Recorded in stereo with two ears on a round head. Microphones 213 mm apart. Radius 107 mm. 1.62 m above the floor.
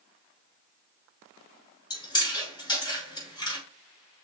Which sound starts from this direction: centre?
Chewing, at 1.9 s.